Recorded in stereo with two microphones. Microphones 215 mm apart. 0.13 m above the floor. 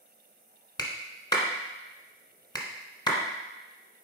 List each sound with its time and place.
0.8 s a clap: 20° left (ahead or behind), 1.2 m